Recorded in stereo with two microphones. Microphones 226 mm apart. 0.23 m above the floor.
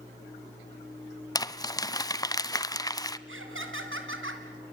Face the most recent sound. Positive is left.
turn(degrees=-60)  # may be behind; listen again after turning